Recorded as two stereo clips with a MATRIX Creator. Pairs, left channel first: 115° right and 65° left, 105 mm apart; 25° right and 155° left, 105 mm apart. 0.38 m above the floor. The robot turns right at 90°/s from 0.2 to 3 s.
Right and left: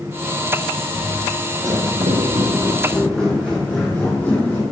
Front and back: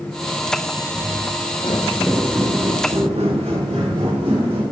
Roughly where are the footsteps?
Right.